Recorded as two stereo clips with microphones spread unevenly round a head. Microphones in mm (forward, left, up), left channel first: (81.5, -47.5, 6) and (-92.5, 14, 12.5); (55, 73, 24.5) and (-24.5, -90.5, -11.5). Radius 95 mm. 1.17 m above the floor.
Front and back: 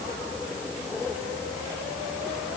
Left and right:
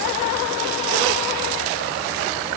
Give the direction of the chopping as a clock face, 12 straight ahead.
No chopping in this recording.